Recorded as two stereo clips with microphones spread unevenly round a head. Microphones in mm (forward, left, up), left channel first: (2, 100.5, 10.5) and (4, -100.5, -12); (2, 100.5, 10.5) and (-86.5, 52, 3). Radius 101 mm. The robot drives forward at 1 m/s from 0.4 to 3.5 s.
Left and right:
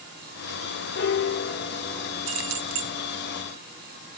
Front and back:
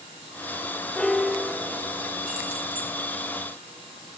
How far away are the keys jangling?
About 1.6 m.